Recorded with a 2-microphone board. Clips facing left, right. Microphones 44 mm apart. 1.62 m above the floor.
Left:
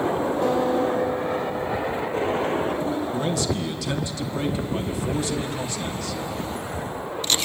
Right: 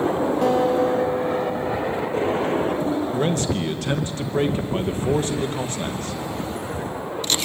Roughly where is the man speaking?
Right.